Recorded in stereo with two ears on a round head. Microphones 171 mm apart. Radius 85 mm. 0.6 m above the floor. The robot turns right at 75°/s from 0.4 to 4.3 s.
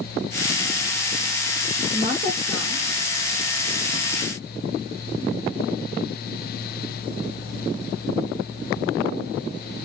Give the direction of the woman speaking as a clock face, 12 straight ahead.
5 o'clock.